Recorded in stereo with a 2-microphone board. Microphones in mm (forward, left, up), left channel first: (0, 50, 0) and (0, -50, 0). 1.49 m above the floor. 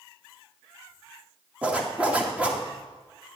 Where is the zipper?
10° right (ahead or behind), 1.9 m.